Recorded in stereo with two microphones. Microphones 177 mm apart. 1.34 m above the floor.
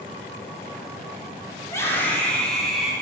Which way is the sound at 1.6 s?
15° left (ahead or behind).